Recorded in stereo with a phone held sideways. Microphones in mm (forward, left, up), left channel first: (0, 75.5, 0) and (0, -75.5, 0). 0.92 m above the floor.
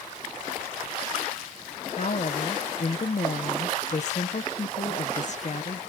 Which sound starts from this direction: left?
A woman speaking, at 1.9 s.